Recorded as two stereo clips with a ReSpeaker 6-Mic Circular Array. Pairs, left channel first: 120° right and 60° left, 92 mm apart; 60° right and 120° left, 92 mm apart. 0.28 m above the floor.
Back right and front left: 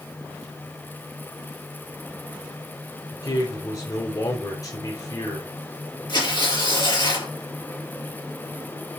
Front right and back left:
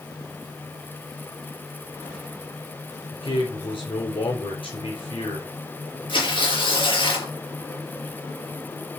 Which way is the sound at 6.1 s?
85° right.